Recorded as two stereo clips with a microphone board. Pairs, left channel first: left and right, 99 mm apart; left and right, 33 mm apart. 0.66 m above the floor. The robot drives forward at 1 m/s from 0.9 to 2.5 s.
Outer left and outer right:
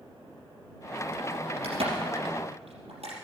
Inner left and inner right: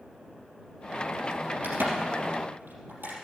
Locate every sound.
1.6 s a crack: 75° right (ahead or behind), 4.5 m; by 3.1 s 85° right, 4.5 m